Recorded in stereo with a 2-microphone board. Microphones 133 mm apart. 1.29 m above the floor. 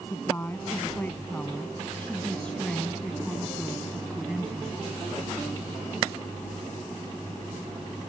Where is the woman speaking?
20° left (ahead or behind); by 4.8 s 5° right (ahead or behind).